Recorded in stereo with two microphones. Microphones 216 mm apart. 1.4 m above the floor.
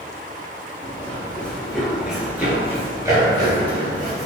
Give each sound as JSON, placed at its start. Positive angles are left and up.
{"t": 0.8, "sound": "running footsteps", "side_deg": 10, "distance_m": 1.7}